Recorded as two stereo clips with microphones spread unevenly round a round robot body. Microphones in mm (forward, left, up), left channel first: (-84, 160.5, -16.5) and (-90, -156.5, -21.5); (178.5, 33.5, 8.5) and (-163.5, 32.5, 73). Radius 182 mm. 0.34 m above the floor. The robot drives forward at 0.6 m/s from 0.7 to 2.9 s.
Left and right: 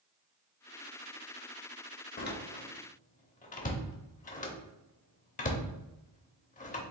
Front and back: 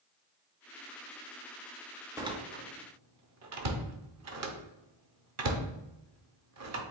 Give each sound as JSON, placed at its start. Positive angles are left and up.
{"t": 2.2, "sound": "a door slam", "azimuth_deg": 85, "distance_m": 0.7}